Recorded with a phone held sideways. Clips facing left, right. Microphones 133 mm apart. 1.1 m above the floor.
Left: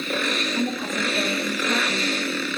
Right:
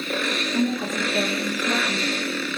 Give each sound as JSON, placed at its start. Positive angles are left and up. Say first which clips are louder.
{"t": 0.5, "sound": "a woman speaking", "louder": "right 6 dB", "side_deg": -75, "distance_m": 1.0}